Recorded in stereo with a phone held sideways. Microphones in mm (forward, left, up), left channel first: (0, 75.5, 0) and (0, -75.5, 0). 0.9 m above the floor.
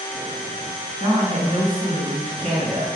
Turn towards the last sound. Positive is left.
turn(degrees=-40)  # may be behind; listen again after turning